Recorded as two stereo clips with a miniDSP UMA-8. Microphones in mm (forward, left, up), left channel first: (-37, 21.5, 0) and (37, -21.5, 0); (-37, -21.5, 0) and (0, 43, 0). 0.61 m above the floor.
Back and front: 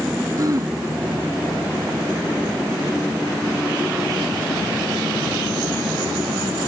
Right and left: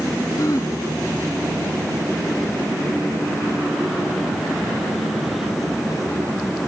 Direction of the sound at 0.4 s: 75° right.